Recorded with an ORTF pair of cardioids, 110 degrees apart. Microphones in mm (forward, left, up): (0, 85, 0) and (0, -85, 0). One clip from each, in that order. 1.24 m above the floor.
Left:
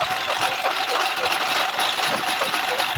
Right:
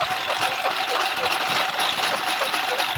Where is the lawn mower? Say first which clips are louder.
Left 1 dB; 20° left; by 3.0 s 15° left.